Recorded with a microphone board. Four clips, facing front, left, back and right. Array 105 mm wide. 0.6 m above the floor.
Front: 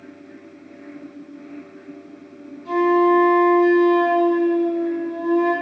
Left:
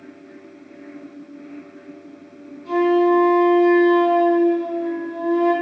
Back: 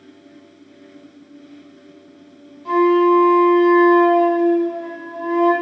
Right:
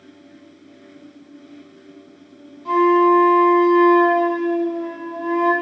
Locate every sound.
2.6 s a flute: 145° right, 5 m